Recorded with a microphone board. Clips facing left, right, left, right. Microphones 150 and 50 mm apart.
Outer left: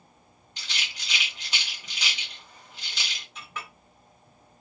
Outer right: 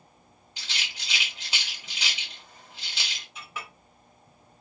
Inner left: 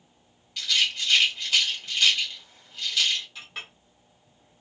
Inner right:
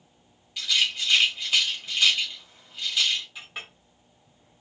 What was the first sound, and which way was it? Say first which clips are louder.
A rattle: outer left 1 dB, even; 10° right (ahead or behind).